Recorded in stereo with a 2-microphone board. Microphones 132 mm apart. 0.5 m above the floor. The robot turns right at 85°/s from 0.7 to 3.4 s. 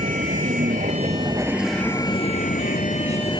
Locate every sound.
0.0 s a vehicle: 85° right; by 3.4 s 145° left